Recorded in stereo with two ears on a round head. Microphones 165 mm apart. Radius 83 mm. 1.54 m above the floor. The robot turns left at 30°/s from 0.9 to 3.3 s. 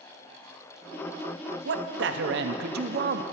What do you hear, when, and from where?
1.6 s a man speaking: 80° right, 0.5 m; by 3.2 s 125° right, 0.5 m